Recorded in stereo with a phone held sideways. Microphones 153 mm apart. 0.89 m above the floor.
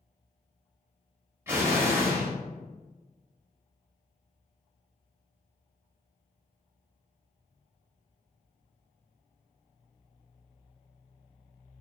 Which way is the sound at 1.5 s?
15° right (ahead or behind).